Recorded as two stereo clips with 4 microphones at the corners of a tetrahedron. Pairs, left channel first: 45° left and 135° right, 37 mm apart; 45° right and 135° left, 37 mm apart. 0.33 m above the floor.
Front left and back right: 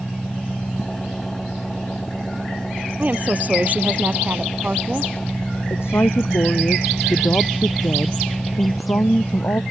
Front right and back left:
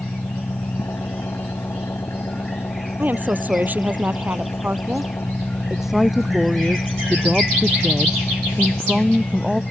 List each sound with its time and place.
0.0 s an engine running: 30° right
3.0 s a woman speaking: straight behind
5.7 s a woman speaking: 50° left